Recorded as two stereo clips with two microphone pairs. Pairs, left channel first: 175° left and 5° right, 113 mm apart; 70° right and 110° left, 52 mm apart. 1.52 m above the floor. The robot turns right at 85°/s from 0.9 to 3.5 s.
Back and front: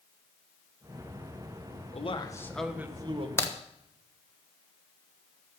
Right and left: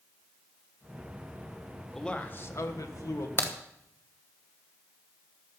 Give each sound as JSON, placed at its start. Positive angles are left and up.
{"t": 1.9, "sound": "a man speaking", "azimuth_deg": -160, "distance_m": 1.4}
{"t": 3.4, "sound": "a crack", "azimuth_deg": -120, "distance_m": 1.2}